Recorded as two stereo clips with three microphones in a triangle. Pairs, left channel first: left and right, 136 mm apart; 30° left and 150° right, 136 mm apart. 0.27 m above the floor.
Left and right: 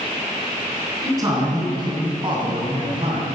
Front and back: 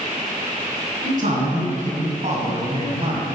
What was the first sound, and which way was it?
A man speaking, 155° right.